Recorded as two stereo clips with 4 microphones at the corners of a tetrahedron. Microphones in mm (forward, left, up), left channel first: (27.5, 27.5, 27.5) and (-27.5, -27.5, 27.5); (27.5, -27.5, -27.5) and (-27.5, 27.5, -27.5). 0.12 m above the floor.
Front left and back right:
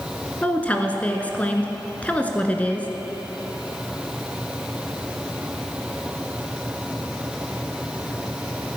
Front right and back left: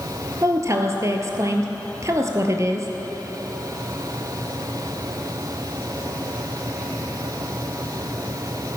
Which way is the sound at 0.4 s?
110° left.